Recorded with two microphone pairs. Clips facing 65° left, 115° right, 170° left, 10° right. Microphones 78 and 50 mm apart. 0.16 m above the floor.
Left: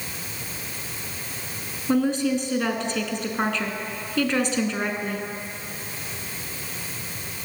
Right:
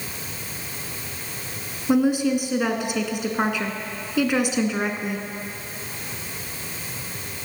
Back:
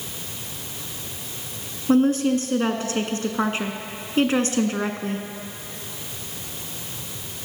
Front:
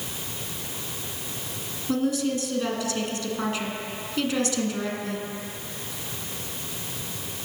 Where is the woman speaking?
170° left, 1.2 m.